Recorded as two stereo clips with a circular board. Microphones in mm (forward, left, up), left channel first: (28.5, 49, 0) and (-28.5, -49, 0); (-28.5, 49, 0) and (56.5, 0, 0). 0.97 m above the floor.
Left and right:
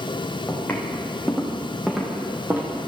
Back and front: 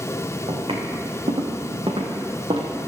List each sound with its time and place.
0.5 s footsteps: 10° right, 3.5 m; by 2.7 s 55° right, 2 m